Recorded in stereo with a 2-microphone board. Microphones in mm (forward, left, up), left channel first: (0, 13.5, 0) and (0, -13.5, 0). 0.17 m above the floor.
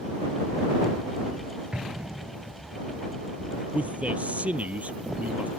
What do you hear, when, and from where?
1.7 s an explosion: 45° right (ahead or behind)
3.7 s a man speaking: 60° right (ahead or behind)